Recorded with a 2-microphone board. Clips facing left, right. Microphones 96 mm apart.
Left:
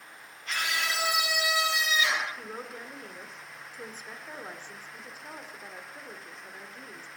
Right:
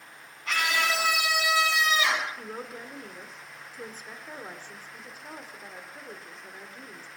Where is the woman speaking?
10° right (ahead or behind), 2.5 m.